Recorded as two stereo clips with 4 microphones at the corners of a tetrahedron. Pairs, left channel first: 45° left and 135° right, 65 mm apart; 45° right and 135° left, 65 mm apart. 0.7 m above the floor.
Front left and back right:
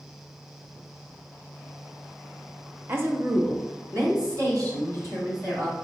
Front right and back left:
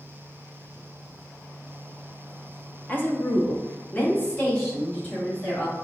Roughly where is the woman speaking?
Right.